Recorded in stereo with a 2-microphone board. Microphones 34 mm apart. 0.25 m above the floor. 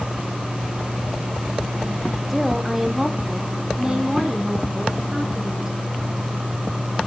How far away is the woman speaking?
About 1.4 m.